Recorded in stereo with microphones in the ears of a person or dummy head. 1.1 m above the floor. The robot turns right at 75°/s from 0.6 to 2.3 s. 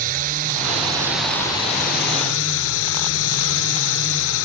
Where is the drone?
45° right; by 4.5 s 80° left.